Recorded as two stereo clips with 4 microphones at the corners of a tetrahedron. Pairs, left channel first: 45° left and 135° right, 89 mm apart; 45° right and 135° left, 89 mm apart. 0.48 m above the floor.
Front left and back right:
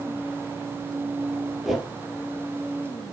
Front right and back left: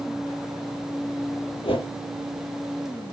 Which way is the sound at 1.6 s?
45° right.